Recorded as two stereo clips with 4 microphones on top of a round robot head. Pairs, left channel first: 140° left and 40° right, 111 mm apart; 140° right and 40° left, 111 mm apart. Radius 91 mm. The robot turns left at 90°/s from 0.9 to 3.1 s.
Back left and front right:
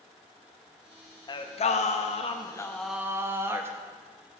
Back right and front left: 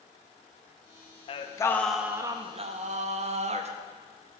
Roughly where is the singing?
Behind.